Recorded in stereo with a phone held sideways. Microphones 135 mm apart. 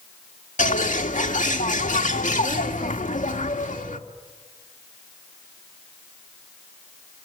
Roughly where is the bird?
Left.